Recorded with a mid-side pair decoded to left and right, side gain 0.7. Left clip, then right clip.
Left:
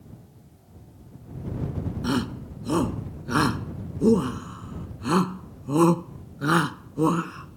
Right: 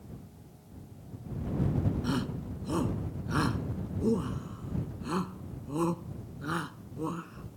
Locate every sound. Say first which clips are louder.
2.0 s a shout: left 6 dB; 35° left; by 7.6 s 50° left